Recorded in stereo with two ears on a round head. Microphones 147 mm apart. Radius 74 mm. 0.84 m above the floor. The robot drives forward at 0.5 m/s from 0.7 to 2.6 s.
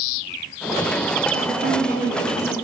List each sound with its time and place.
1.3 s a woman speaking: 60° right (ahead or behind), 1.4 m; by 2.5 s 50° right (ahead or behind), 1.6 m